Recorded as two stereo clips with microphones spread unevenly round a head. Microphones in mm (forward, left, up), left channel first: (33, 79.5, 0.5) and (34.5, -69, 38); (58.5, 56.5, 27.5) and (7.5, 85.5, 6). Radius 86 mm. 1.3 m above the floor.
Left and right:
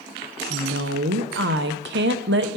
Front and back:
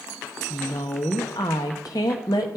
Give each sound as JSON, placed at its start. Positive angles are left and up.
{"t": 0.5, "sound": "a woman speaking", "azimuth_deg": -85, "distance_m": 0.9}